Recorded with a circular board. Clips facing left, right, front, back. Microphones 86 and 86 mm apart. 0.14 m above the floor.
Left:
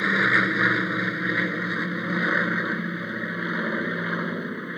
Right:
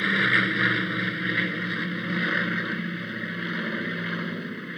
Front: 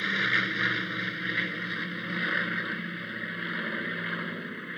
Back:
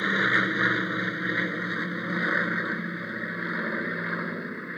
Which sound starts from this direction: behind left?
An aircraft, at 0.0 s.